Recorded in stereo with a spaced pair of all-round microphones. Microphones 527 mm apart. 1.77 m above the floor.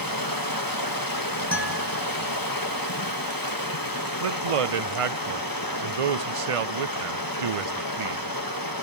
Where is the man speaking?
80° right, 0.7 m.